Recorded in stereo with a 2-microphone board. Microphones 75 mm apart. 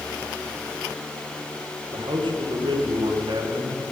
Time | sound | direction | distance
1.9 | a man speaking | 90° right | 1.8 m